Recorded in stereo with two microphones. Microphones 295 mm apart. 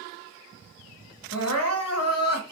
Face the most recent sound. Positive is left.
turn(degrees=55)  # may be behind; listen again after turning